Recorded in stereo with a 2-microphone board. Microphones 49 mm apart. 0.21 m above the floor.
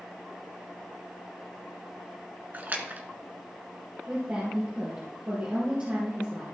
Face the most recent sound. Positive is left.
turn(degrees=-35)  # may be behind; listen again after turning